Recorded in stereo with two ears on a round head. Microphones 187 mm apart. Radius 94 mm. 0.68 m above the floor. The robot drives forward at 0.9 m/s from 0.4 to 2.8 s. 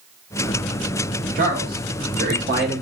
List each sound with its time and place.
1.4 s a man speaking: 40° right (ahead or behind), 1.7 m; by 2.8 s 45° right (ahead or behind), 1.5 m